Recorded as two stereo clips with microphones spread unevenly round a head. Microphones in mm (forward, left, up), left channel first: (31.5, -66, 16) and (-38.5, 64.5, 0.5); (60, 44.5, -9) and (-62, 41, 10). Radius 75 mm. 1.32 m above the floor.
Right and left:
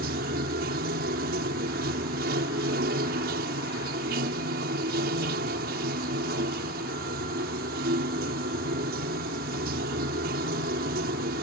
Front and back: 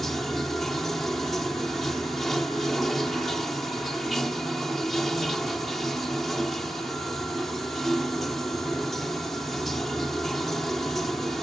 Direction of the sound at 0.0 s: 90° left.